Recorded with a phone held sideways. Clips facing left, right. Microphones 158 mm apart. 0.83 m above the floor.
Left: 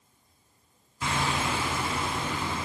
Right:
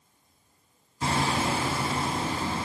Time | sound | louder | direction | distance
1.0 | hammering | right 3 dB | 35° right (ahead or behind) | 5.5 m